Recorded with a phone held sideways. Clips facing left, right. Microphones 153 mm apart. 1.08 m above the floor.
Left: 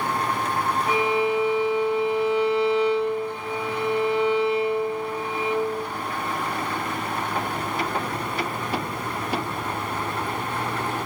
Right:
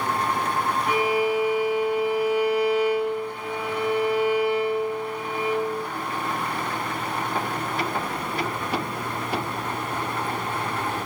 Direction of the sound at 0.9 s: 30° left (ahead or behind).